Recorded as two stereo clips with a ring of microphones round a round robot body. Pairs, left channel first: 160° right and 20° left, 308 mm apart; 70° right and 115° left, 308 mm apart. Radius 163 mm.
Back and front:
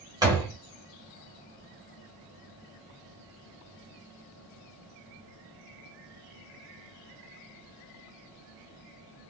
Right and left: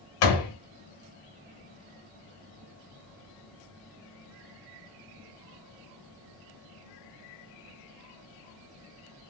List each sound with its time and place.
0.2 s a door slam: 55° right, 1.1 m